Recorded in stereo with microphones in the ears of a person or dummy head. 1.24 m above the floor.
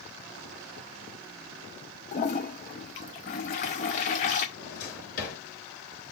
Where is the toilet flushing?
30° left (ahead or behind), 0.7 m.